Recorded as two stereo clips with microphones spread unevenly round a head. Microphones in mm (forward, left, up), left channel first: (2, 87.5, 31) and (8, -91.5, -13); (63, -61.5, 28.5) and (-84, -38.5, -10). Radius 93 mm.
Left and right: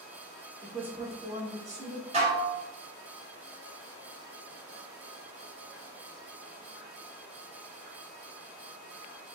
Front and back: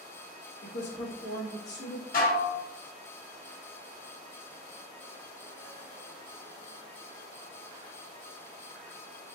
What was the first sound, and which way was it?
A woman speaking, 10° right.